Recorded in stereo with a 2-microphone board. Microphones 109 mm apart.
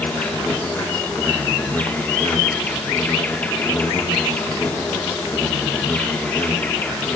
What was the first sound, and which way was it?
An insect, 15° left (ahead or behind).